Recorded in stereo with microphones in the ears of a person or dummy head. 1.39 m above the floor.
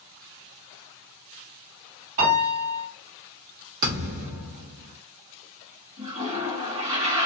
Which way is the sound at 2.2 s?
50° right (ahead or behind).